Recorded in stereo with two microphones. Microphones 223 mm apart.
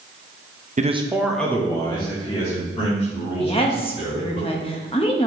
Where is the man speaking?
35° right (ahead or behind), 0.7 m; by 4.4 s 35° left (ahead or behind), 4.5 m.